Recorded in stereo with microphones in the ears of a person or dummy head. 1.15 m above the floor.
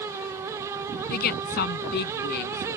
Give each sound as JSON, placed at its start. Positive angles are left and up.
{"t": 1.1, "sound": "a woman speaking", "side_deg": 55}